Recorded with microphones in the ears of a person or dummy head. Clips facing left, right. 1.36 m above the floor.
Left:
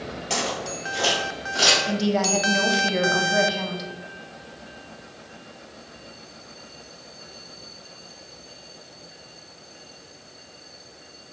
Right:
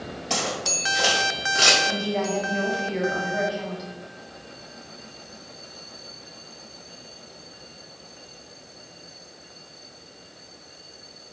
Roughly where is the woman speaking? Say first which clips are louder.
Left 3 dB; left.